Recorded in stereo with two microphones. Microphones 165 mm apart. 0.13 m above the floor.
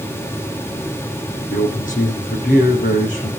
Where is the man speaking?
50° left (ahead or behind), 6 m.